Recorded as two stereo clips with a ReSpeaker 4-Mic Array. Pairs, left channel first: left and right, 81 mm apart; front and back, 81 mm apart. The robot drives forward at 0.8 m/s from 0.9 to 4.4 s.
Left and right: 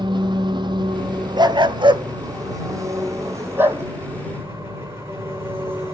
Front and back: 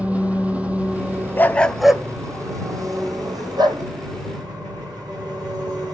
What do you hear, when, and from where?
0.0 s an engine running: 105° right, 2 m; by 5.9 s 150° right, 4 m
1.4 s a dog barking: 65° right, 0.8 m; by 3.8 s 155° right, 1.8 m